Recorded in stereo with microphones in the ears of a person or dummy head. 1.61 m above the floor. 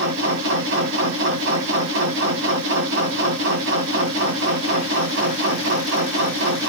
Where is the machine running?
60° right (ahead or behind), 1.1 m.